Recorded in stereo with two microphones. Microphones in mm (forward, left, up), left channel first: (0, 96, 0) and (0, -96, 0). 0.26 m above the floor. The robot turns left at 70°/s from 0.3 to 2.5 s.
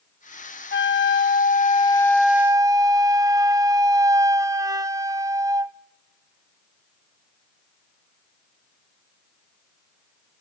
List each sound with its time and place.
0.7 s a flute: 105° left, 0.5 m; by 5.8 s 20° right, 0.5 m